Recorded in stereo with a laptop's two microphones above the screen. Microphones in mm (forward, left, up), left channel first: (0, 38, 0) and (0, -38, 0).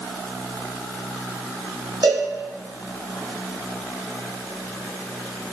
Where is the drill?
No drill in this recording.